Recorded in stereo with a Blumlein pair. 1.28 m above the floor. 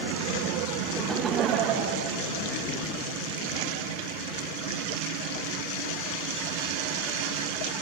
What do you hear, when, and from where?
1.0 s laughter: straight ahead, 1.0 m; by 2.7 s 55° right, 3 m